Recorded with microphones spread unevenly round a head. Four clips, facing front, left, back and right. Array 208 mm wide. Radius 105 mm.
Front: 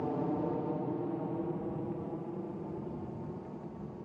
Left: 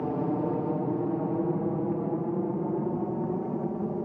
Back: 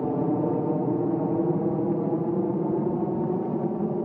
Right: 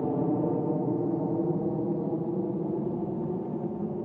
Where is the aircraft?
165° right; by 4.1 s 165° left.